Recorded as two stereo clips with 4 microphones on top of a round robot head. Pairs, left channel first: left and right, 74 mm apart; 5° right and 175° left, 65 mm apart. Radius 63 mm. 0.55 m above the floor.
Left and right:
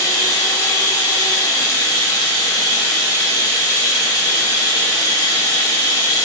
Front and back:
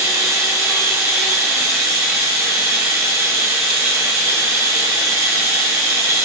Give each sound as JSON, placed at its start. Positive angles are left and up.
{"t": 0.0, "sound": "running water", "azimuth_deg": 130, "distance_m": 1.3}